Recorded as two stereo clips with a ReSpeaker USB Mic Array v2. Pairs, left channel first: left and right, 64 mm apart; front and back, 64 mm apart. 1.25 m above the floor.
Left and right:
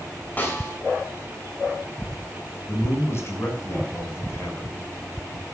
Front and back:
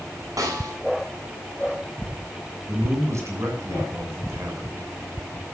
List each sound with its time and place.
0.4 s a snare drum: 155° left, 7.5 m
2.7 s a man speaking: 140° left, 6.5 m